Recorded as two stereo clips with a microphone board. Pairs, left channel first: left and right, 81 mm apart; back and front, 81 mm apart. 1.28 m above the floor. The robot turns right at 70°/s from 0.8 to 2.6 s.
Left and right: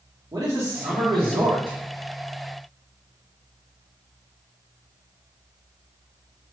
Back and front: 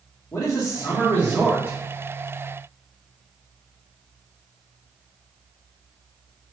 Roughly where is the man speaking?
Behind right.